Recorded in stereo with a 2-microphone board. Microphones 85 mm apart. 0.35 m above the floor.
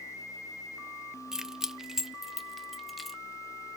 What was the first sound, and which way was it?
Keys jangling, 5° right (ahead or behind).